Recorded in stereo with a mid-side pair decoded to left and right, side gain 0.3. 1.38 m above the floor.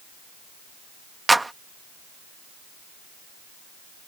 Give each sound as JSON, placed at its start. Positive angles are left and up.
{"t": 1.3, "sound": "a clap", "azimuth_deg": -25}